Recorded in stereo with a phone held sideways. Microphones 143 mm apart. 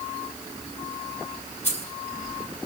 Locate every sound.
1.6 s keys jangling: 50° left (ahead or behind), 4 m